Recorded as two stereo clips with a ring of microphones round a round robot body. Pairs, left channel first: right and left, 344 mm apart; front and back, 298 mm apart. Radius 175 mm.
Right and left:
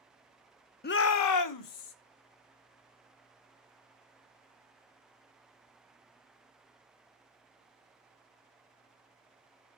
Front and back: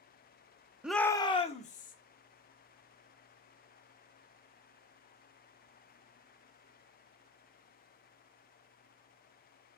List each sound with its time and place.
0.8 s a shout: 100° right, 0.6 m; by 1.9 s 65° right, 1.4 m